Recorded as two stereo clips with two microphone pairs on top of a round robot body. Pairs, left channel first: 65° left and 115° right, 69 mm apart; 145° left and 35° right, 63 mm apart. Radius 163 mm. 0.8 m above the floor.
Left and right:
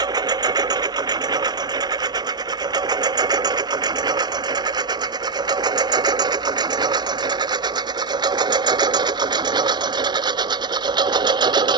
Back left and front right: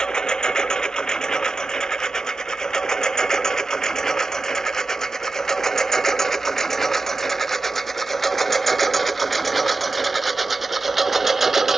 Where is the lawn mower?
140° right; by 11.8 s 125° right.